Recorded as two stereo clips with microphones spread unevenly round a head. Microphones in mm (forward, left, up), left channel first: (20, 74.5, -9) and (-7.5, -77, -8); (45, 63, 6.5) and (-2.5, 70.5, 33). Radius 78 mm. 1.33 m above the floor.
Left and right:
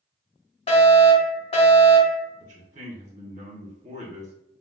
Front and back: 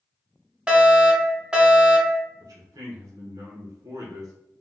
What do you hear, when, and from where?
0.7 s a fire alarm: 65° left, 1.1 m
2.4 s a man speaking: 150° right, 1.3 m